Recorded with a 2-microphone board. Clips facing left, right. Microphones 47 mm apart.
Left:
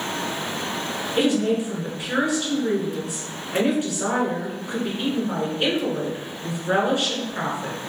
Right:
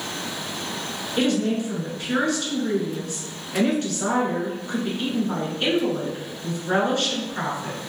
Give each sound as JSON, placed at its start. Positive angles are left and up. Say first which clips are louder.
{"t": 1.2, "sound": "a woman speaking", "louder": "left 1 dB", "side_deg": 15, "distance_m": 1.2}